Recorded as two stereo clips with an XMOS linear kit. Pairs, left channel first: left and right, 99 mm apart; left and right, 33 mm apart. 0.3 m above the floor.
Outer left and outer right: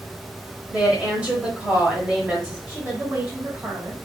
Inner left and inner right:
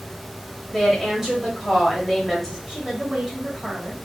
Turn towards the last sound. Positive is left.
turn(degrees=-20)  # may be behind; listen again after turning